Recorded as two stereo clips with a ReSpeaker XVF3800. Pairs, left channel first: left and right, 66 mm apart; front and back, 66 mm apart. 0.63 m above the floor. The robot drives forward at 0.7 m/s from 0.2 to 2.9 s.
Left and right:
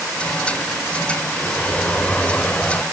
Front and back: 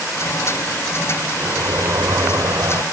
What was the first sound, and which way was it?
A sliding door, 155° left.